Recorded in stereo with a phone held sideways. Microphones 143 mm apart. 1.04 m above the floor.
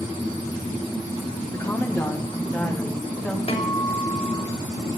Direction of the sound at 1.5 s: 20° left (ahead or behind).